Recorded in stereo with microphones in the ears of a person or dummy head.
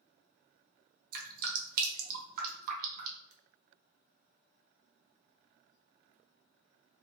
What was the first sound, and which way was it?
Dripping, 55° right (ahead or behind).